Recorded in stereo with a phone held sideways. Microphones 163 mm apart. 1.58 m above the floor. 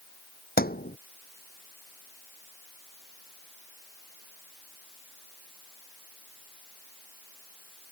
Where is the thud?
65° left (ahead or behind).